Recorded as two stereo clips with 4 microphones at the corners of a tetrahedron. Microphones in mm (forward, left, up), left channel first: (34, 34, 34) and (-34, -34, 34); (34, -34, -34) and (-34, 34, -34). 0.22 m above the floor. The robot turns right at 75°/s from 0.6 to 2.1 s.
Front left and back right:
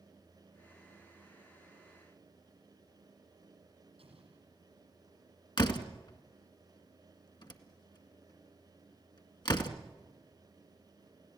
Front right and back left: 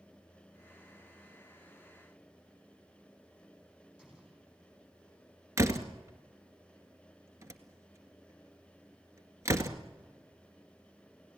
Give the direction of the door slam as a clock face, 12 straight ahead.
9 o'clock.